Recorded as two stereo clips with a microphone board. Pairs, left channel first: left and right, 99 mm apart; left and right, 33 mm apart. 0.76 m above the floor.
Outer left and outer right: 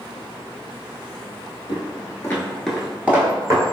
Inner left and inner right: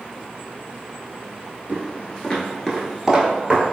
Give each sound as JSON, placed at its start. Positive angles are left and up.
{"t": 1.7, "sound": "footsteps", "side_deg": 45, "distance_m": 1.0}